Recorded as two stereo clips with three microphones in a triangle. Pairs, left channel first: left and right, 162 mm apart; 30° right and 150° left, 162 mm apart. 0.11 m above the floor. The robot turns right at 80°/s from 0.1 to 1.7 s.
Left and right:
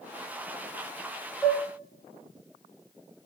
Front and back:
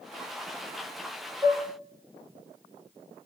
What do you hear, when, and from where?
1.4 s dishes clattering: 160° left, 0.9 m; by 1.7 s straight behind, 0.9 m